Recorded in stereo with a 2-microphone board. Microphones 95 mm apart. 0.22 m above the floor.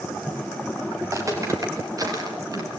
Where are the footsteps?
30° right (ahead or behind), 7 m; by 2.7 s 40° right (ahead or behind), 7 m.